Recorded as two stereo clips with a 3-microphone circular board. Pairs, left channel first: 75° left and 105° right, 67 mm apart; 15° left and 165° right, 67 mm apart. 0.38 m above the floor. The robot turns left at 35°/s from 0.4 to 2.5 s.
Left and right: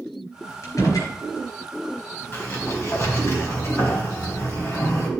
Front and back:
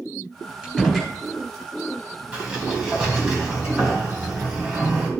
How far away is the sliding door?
About 3 m.